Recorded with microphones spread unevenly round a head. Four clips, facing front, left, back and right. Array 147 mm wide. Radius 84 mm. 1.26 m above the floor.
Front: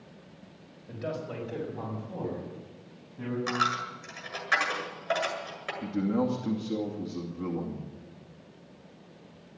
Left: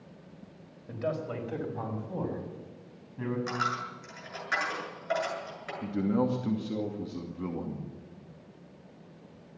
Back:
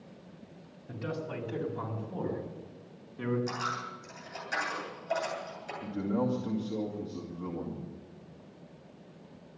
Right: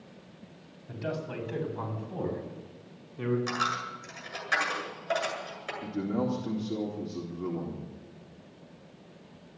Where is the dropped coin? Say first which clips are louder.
Right 1 dB, front 6 dB; straight ahead, 8 m.